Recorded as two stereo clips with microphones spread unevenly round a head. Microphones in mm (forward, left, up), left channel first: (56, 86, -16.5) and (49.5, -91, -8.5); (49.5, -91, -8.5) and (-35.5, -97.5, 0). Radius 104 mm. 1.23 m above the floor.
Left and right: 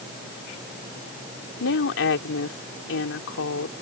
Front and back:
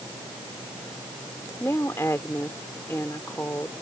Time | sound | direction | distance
1.6 | a woman speaking | 85° left | ?